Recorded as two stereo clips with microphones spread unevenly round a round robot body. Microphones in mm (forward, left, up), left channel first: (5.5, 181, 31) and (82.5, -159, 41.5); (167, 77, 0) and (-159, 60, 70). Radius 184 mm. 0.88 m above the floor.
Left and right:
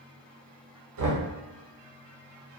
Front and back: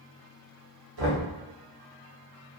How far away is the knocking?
About 0.7 m.